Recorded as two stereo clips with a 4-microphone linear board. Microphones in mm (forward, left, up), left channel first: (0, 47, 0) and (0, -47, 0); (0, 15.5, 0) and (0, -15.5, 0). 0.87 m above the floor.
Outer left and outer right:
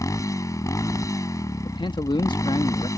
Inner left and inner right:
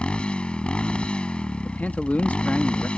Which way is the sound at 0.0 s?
35° left (ahead or behind).